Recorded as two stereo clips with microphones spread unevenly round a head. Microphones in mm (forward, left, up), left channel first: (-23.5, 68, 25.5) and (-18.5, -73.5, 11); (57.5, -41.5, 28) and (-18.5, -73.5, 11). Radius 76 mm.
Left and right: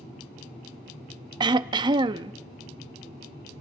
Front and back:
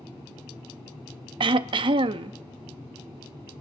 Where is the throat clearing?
145° right, 0.5 m.